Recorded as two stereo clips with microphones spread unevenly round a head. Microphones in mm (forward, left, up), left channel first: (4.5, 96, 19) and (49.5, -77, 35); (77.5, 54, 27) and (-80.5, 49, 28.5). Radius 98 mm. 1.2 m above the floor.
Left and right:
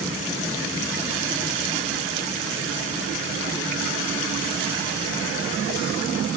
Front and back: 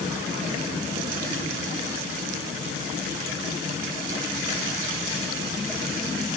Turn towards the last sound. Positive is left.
No sound to turn to.